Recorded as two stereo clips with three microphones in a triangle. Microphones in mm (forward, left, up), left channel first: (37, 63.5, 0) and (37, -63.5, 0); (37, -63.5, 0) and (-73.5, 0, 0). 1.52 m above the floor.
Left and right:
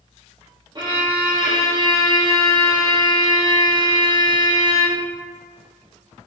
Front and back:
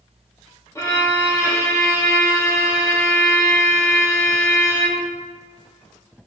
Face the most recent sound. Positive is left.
turn(degrees=-80)